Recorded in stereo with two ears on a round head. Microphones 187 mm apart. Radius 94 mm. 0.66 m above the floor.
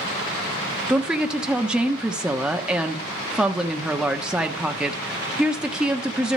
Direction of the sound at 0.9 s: 5° right (ahead or behind).